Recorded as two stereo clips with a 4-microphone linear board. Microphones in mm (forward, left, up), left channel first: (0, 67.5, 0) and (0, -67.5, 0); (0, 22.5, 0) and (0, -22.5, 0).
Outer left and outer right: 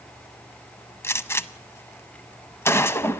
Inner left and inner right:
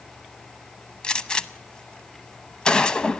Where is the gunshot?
20° left (ahead or behind), 0.6 m.